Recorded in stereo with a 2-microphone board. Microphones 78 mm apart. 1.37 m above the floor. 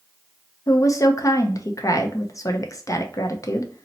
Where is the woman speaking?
45° left (ahead or behind), 0.5 m.